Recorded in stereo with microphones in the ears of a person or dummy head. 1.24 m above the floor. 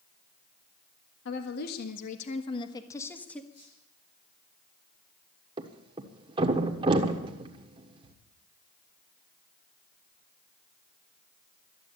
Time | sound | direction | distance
1.2 | a woman speaking | 70° left (ahead or behind) | 1.3 m
3.5 | a squeak | 45° left (ahead or behind) | 6.5 m
5.6 | a thud | 30° right (ahead or behind) | 1.4 m